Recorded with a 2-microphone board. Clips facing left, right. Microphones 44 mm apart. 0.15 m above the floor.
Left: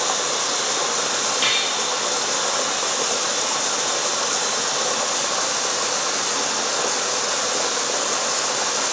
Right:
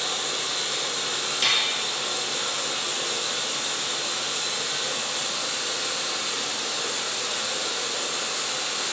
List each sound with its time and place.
0.0 s running water: 80° left, 0.8 m
1.4 s dishes clattering: 15° left (ahead or behind), 2 m